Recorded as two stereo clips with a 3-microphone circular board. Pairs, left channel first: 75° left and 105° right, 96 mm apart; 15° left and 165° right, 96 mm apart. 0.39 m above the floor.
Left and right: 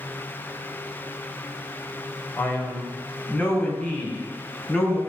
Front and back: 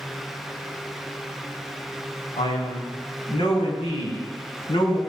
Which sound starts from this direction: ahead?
A man speaking, at 2.4 s.